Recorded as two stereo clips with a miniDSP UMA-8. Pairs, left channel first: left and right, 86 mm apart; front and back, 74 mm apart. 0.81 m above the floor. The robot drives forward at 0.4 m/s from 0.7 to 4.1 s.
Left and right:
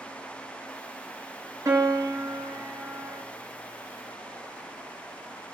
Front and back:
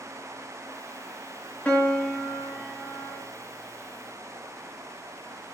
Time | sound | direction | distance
1.6 | a piano | 65° right | 1.5 m